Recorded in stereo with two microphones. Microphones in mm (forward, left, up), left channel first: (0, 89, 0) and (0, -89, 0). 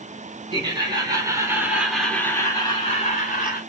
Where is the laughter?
30° right (ahead or behind), 2.5 m; by 3.6 s 45° left (ahead or behind), 1.8 m.